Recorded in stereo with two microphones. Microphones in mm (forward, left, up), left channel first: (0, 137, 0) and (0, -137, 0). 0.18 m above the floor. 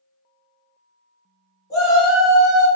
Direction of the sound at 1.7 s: 15° left (ahead or behind).